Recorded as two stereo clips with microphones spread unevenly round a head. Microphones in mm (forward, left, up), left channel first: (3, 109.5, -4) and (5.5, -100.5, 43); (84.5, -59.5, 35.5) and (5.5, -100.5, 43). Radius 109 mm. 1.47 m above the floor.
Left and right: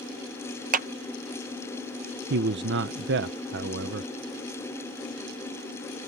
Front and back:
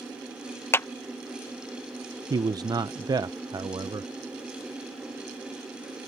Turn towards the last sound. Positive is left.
turn(degrees=-115)